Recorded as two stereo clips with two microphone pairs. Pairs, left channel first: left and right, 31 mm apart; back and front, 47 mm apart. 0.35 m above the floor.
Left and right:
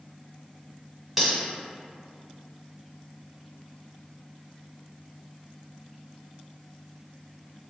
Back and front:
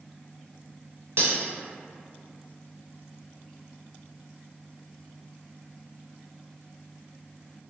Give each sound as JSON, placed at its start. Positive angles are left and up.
{"t": 1.2, "sound": "cutlery clinking", "azimuth_deg": -10, "distance_m": 1.3}